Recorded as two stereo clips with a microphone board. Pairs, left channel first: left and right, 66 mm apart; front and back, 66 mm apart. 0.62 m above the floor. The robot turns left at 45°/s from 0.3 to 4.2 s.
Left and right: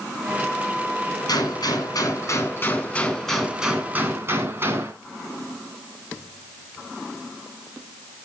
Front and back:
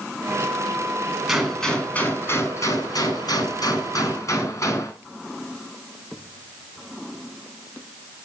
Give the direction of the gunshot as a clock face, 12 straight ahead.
9 o'clock.